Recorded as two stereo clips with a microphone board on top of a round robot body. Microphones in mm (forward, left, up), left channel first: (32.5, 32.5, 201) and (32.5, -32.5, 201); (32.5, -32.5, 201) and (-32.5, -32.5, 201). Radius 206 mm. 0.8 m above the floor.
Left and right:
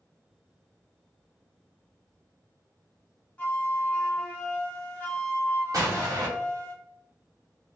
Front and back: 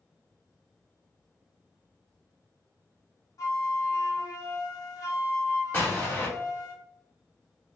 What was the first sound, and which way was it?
A flute, 20° left.